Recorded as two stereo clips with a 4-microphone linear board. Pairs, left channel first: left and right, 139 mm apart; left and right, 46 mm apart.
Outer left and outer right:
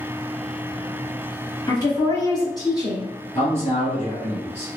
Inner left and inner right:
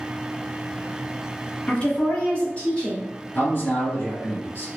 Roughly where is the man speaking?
Left.